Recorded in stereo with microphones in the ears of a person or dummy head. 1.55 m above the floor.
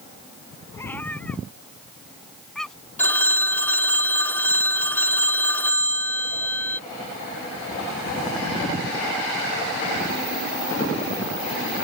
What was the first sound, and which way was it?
A cat meowing, 5° left (ahead or behind).